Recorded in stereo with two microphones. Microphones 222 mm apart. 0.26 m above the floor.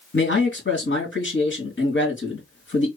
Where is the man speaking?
60° left (ahead or behind), 3 m.